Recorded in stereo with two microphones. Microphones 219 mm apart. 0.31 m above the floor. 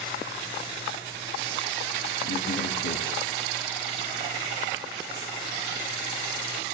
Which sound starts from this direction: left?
A man speaking, at 2.2 s.